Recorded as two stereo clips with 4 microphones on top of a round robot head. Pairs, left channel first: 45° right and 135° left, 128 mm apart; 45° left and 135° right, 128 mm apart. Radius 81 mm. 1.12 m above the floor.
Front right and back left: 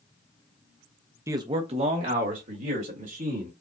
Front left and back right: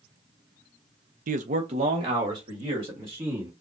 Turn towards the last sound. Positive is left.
turn(degrees=160)